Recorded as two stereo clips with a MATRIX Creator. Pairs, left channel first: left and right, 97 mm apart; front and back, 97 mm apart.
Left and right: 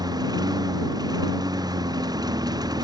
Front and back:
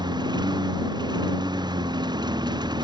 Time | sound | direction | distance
0.0 | a lawn mower | 135° right | ?